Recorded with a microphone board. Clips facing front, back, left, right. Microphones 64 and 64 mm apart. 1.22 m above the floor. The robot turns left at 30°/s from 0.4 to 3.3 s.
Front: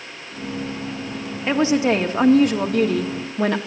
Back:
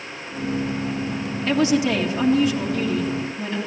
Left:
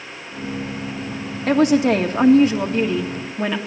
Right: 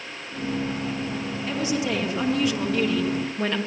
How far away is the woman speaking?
About 2 m.